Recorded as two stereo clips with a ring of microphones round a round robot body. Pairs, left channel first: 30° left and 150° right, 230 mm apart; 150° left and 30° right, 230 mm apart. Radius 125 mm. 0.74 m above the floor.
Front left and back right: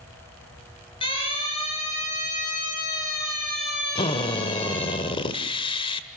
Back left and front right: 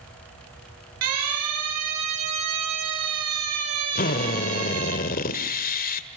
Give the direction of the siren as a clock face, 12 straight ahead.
1 o'clock.